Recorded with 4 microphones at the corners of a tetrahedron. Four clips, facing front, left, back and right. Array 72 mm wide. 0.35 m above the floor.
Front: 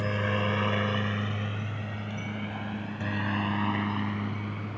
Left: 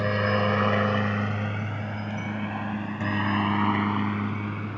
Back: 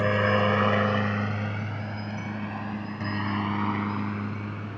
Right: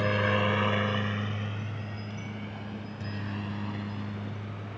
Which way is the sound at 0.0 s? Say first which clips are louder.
Left 2 dB, back 6 dB; 165° left.